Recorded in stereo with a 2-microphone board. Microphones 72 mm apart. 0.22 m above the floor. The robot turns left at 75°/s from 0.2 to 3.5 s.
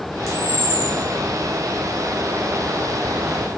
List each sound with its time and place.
0.3 s a camera shutter: 5° right, 1.9 m; by 0.9 s 55° right, 1.9 m